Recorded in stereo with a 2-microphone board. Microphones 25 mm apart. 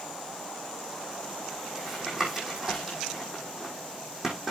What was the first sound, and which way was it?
Tapping, 15° right (ahead or behind).